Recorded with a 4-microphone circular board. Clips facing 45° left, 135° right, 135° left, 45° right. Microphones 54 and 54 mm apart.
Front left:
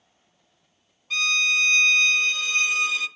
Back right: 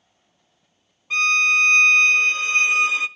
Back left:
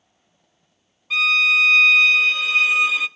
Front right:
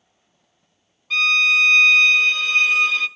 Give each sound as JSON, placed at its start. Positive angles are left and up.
{"t": 1.1, "sound": "a violin", "azimuth_deg": -145, "distance_m": 0.6}